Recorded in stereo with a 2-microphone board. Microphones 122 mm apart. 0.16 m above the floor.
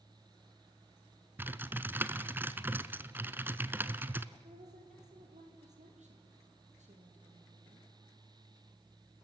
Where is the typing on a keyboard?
20° right (ahead or behind), 0.8 m.